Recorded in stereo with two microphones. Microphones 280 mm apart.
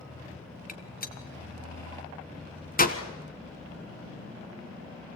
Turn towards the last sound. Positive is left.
turn(degrees=30)  # may be behind; listen again after turning